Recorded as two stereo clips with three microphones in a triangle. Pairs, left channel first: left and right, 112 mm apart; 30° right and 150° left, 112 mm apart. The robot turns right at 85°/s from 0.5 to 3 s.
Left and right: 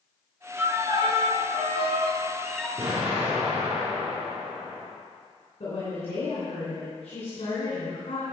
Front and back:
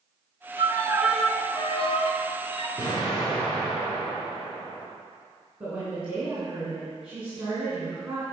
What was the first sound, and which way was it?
A violin, 170° right.